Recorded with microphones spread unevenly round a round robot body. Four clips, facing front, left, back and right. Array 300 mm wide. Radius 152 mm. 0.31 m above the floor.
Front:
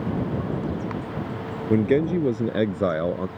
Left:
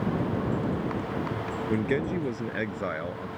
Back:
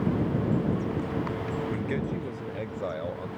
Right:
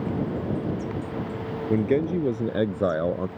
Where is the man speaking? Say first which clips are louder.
Right 5 dB, front 11 dB; 10° right; by 3.3 s 30° right.